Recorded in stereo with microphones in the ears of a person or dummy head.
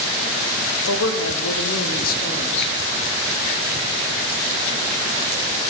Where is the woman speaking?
85° left, 1.1 m; by 2.7 s 25° left (ahead or behind), 1.0 m.